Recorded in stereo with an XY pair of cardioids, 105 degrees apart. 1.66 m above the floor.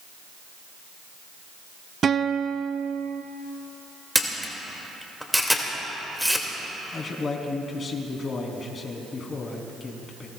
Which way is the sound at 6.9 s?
40° left.